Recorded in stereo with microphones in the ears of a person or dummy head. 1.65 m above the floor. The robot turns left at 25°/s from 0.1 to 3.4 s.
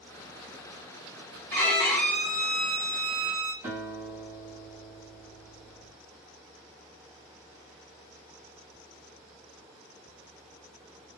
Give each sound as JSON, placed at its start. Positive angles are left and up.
{"t": 1.5, "sound": "a violin", "side_deg": 15, "distance_m": 0.6}
{"t": 3.6, "sound": "a guitar", "side_deg": -15, "distance_m": 1.8}